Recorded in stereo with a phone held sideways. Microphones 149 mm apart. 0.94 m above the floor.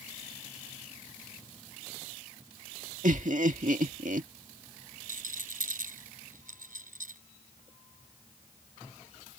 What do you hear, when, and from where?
3.0 s laughter: 60° right (ahead or behind)
5.1 s a rattle: 65° right (ahead or behind)